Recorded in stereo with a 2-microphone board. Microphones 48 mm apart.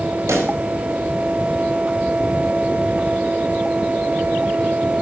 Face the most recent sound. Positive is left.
turn(degrees=-80)